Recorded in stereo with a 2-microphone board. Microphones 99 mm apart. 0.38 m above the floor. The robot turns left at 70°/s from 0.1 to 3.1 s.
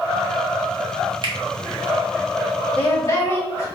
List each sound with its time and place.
1.2 s a finger snap: 55° right (ahead or behind), 1.0 m; by 1.3 s 50° right (ahead or behind), 1.0 m
2.8 s a woman speaking: 15° left (ahead or behind), 1.9 m; by 3.7 s 35° left (ahead or behind), 1.9 m